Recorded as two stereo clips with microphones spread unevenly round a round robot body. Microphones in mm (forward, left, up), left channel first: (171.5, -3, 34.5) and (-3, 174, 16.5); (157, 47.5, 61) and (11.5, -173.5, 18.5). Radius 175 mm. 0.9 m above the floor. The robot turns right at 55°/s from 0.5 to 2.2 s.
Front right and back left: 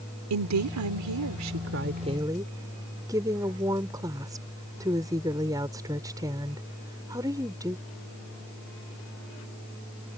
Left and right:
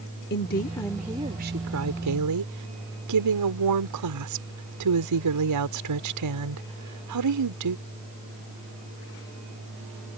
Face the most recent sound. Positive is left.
turn(degrees=-145)